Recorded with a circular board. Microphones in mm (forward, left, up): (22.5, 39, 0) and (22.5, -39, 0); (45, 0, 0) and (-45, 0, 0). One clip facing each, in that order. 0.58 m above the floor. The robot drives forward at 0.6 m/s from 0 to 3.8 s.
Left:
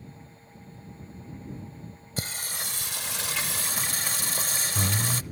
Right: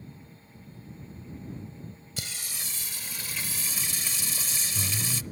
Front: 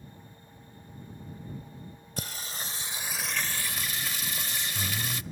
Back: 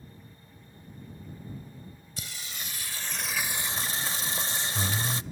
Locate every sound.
2.2 s singing: 40° left, 0.9 m; by 5.2 s 120° left, 0.6 m